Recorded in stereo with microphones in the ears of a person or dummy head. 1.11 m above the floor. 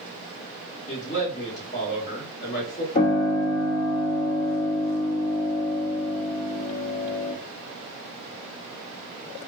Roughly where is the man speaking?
Left.